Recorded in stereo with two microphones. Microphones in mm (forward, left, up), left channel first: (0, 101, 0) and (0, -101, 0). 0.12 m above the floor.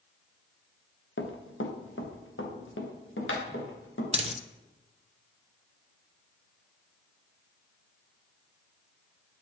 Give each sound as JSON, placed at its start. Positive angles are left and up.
{"t": 1.2, "sound": "running footsteps", "side_deg": 75, "distance_m": 1.5}
{"t": 4.1, "sound": "a dropped coin", "side_deg": -30, "distance_m": 0.7}